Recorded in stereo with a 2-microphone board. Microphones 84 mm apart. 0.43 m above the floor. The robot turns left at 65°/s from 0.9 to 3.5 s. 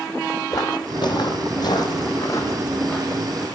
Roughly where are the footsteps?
Left.